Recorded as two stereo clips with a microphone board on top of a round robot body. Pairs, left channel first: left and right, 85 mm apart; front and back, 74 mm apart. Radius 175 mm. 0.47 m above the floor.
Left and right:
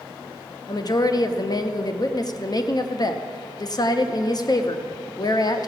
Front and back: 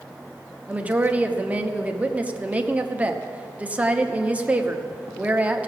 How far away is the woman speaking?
About 1.1 m.